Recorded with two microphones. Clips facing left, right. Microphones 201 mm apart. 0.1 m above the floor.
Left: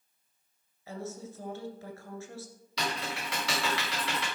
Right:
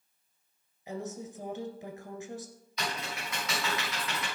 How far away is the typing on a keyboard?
About 5 m.